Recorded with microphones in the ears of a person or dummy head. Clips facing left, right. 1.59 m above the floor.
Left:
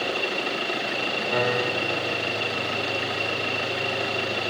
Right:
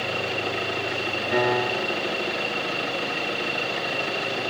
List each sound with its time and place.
1.3 s a piano: 10° right (ahead or behind), 7 m